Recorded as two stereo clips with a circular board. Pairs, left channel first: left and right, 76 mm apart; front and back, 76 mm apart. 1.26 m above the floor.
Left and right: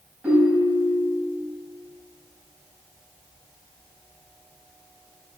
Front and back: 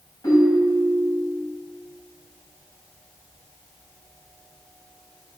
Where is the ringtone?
15° right, 3.5 m.